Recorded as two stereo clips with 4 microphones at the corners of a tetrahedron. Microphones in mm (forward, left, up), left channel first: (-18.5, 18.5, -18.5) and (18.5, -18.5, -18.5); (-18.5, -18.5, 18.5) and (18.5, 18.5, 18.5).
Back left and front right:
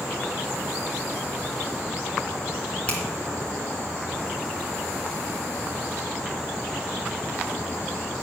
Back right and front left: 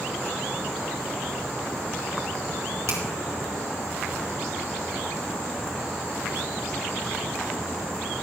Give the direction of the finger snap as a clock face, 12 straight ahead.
10 o'clock.